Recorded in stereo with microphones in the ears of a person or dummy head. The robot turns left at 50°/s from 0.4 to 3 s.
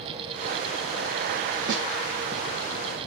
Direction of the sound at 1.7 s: 70° right (ahead or behind).